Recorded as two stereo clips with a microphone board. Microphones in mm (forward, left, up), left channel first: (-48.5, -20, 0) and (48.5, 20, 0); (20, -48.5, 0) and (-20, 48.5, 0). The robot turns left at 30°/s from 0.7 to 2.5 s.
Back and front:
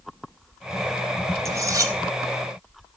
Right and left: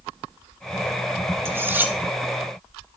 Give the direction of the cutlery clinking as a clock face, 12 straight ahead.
10 o'clock.